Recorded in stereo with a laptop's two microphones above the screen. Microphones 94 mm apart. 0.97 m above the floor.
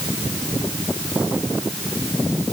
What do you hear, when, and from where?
Only background noise.